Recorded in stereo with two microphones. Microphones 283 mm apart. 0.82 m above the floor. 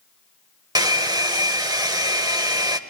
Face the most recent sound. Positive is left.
turn(degrees=-15)  # may be behind; listen again after turning